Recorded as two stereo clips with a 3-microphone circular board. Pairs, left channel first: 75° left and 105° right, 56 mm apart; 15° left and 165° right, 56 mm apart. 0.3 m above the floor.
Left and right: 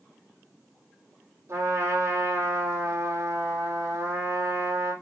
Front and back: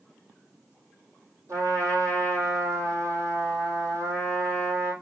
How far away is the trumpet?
About 3 m.